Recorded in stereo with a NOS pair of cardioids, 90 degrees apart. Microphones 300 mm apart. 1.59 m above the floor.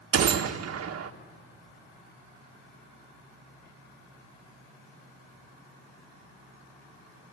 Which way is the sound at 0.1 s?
55° right.